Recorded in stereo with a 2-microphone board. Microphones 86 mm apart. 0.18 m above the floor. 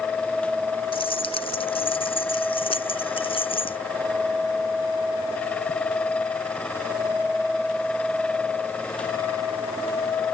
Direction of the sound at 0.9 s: 80° left.